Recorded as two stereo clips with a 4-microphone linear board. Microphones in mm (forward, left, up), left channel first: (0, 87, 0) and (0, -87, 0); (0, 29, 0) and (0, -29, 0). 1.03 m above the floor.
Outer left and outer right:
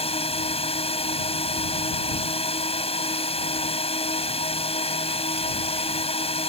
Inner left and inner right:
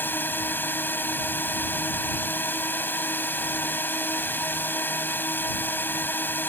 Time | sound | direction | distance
0.0 | a drone | 35° left (ahead or behind) | ?